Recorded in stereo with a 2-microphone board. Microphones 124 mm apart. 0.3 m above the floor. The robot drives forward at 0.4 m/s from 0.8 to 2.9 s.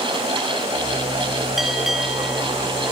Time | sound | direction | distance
1.6 | a bell | centre (ahead or behind) | 1.3 m